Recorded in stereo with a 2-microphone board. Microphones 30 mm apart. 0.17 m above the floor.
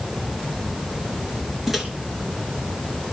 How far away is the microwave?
About 2 m.